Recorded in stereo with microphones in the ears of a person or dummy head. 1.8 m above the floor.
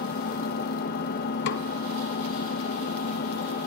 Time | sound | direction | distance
0.0 | an engine running | 50° left (ahead or behind) | 2 m
1.5 | a snare drum | 70° left (ahead or behind) | 0.9 m